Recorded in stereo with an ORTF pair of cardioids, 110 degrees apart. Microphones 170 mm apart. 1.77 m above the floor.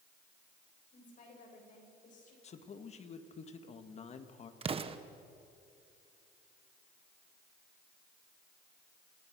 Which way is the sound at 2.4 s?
40° left.